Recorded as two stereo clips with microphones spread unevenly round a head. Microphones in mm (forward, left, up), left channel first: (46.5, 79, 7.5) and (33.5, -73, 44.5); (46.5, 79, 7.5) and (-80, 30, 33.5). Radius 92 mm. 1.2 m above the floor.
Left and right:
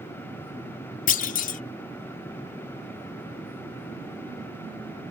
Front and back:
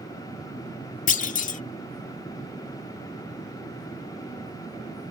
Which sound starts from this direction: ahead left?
A clunk, at 1.1 s.